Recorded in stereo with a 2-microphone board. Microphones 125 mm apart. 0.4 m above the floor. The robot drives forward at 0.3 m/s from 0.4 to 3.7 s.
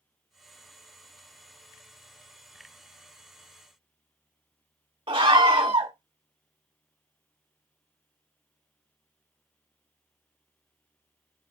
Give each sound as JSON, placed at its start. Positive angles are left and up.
{"t": 5.1, "sound": "a scream", "side_deg": -45, "distance_m": 1.1}